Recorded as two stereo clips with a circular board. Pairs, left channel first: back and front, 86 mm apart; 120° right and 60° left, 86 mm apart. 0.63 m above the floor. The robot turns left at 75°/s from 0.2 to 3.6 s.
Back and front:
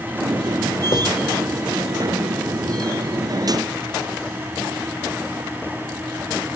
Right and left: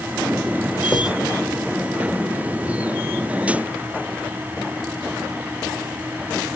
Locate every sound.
0.9 s writing: 150° left, 1.5 m; by 1.1 s 140° left, 1.5 m